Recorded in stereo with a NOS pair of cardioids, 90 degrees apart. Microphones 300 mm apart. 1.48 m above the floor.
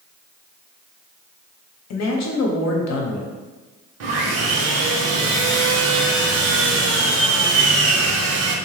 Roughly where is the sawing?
Ahead right.